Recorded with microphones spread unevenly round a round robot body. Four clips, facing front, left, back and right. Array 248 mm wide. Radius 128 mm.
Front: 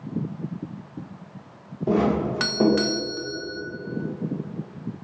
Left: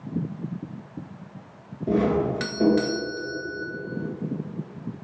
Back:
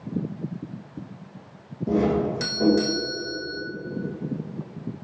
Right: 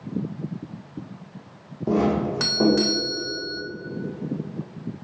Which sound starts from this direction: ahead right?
A doorbell, at 1.9 s.